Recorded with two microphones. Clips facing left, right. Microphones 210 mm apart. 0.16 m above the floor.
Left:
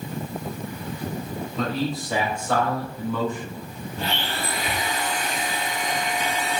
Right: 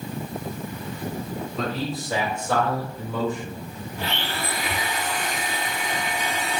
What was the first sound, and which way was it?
A man speaking, centre (ahead or behind).